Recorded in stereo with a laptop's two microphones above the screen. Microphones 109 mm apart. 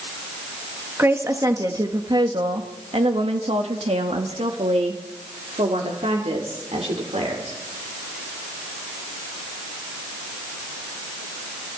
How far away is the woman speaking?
About 2.0 m.